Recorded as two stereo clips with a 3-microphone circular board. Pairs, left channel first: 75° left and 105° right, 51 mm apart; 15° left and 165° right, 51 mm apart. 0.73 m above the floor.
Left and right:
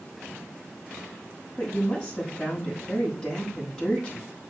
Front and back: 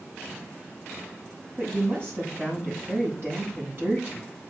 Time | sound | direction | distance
1.6 | a woman speaking | 145° left | 6.5 m